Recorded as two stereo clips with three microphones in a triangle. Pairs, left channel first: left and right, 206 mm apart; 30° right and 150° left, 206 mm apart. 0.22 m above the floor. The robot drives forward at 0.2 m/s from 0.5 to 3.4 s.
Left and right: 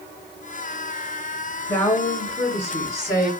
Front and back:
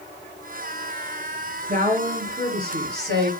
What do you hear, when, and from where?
1.7 s a woman speaking: 165° left, 1.9 m